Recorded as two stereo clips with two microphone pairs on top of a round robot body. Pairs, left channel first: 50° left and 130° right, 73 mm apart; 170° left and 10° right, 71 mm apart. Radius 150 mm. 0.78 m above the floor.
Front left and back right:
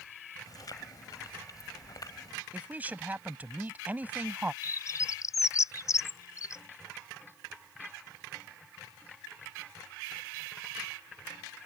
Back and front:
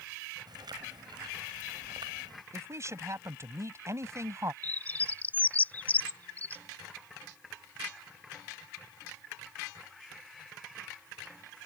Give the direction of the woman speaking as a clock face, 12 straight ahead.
2 o'clock.